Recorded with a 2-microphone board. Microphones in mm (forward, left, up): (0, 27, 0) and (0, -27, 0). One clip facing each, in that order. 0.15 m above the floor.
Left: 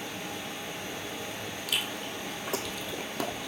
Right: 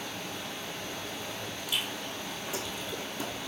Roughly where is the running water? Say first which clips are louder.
Left 1 dB; centre.